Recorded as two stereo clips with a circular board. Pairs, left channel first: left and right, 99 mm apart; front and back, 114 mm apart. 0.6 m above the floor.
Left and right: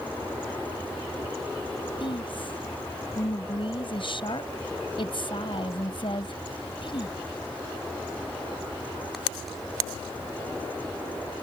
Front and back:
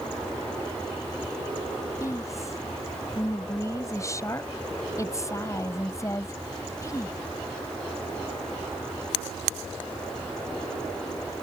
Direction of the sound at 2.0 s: 60° left.